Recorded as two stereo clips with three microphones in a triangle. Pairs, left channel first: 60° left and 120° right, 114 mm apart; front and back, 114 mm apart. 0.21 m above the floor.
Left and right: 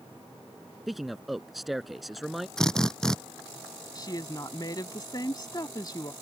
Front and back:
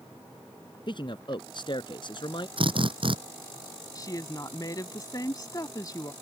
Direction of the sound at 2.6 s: 145° left.